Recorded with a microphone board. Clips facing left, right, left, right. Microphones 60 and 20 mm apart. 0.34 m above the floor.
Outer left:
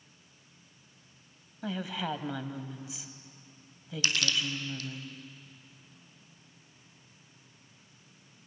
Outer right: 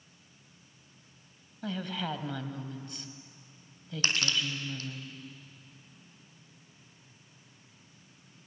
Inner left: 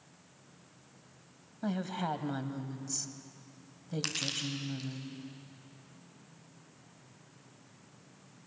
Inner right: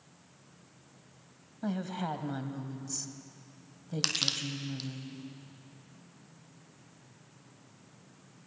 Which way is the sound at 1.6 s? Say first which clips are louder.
Outer left 1 dB, even; 5° left (ahead or behind).